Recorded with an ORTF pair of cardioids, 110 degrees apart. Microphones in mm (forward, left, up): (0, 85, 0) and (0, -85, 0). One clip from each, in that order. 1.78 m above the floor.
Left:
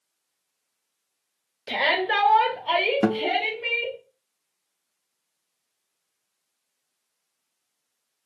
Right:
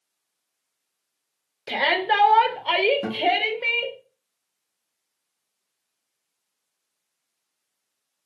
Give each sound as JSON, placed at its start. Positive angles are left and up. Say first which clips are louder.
{"t": 1.7, "sound": "a shout", "louder": "right 1 dB", "azimuth_deg": -10, "distance_m": 1.1}
{"t": 3.0, "sound": "a guitar", "louder": "right 1 dB", "azimuth_deg": 50, "distance_m": 0.6}